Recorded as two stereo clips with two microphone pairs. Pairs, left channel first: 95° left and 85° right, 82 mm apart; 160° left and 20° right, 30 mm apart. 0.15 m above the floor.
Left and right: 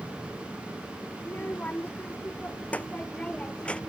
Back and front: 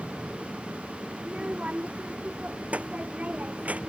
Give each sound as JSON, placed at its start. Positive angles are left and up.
{"t": 1.2, "sound": "a child speaking", "azimuth_deg": 25}